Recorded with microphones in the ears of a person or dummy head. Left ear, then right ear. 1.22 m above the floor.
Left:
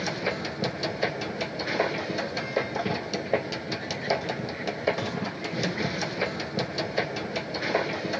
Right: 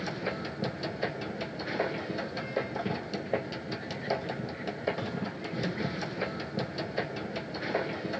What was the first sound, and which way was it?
A machine running, 10° left (ahead or behind).